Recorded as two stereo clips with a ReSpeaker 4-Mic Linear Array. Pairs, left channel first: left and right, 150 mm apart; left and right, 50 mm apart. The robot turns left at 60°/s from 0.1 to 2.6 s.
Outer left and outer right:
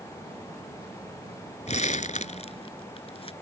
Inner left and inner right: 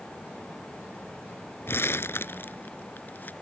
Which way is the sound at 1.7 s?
50° left (ahead or behind).